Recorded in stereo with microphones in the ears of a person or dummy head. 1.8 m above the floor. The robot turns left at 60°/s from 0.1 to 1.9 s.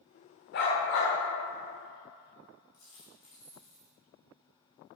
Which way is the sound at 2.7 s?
35° left (ahead or behind).